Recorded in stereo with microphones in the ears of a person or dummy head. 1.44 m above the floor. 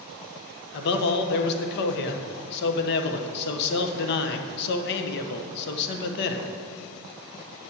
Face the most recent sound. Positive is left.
turn(degrees=60)  # may be behind; listen again after turning